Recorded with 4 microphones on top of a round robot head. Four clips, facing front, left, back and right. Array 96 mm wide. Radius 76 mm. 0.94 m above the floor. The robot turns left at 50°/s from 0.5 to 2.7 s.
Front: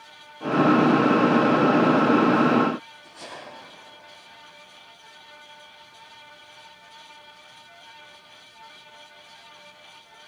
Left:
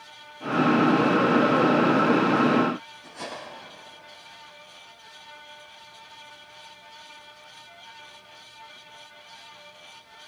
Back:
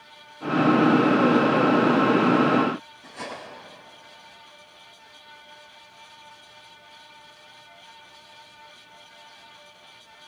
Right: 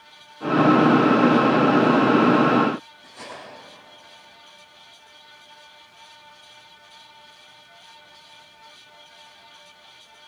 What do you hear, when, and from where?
3.0 s cutlery clinking: 175° left, 8.5 m